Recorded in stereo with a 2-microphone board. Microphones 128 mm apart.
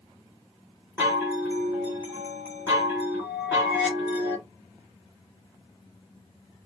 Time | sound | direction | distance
1.0 | a chime | 20° right (ahead or behind) | 1.4 m